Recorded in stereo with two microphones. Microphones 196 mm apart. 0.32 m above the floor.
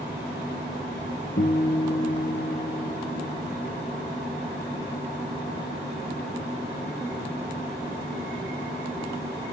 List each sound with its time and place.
1.4 s a guitar: 80° left, 0.6 m